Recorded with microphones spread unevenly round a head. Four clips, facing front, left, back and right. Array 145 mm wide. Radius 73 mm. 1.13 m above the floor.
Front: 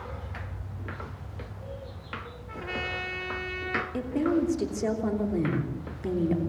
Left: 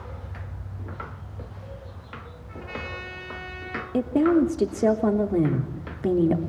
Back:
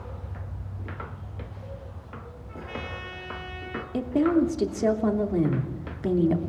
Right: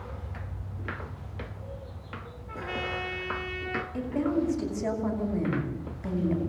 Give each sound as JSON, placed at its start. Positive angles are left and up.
{"t": 2.5, "sound": "a trumpet", "azimuth_deg": -35, "distance_m": 3.0}
{"t": 3.9, "sound": "a woman speaking", "azimuth_deg": 90, "distance_m": 3.0}